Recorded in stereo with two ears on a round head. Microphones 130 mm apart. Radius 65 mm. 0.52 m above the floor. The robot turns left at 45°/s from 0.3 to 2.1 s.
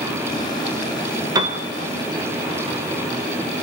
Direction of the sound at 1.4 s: 25° right (ahead or behind).